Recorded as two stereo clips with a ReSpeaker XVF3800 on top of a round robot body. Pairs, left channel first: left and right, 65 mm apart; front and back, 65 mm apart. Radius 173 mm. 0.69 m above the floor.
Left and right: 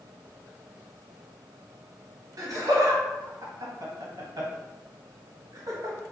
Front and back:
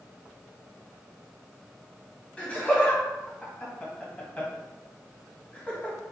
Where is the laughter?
70° right, 1.2 m.